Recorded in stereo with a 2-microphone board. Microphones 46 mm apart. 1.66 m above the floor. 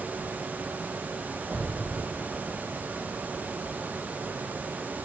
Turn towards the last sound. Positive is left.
turn(degrees=10)  # may be behind; listen again after turning